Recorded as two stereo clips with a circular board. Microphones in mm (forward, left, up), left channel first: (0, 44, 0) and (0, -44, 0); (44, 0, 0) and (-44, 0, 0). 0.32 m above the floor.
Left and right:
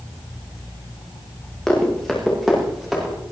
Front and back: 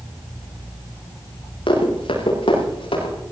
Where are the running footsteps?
5° left, 8 m; by 3.1 s straight ahead, 9.5 m.